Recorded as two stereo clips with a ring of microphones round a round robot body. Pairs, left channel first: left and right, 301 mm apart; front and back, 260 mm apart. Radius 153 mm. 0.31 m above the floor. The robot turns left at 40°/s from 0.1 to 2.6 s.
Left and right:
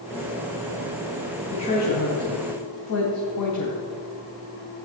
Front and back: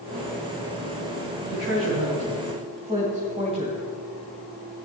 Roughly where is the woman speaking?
Behind.